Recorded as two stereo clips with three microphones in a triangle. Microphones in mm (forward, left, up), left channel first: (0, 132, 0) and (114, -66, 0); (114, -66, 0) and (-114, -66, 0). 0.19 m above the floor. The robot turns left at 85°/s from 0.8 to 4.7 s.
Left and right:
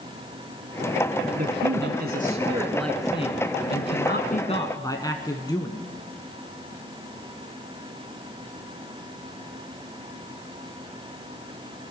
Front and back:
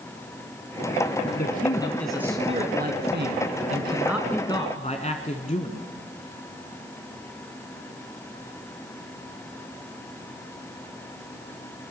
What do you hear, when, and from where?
1.4 s a man speaking: 25° right, 1.5 m; by 5.8 s 50° left, 1.5 m